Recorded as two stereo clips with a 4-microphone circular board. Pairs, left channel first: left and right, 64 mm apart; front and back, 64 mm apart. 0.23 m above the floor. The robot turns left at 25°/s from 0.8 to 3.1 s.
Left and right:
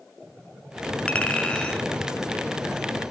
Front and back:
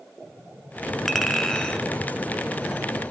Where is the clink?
75° left, 0.5 m; by 1.9 s 55° left, 0.5 m.